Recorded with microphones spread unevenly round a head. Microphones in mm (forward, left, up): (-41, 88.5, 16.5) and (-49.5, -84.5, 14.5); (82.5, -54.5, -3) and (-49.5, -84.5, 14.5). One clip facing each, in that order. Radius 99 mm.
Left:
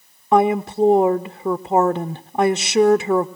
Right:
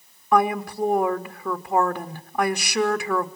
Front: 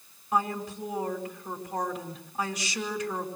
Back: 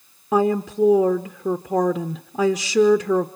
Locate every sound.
0.3 s a woman speaking: 155° left, 0.7 m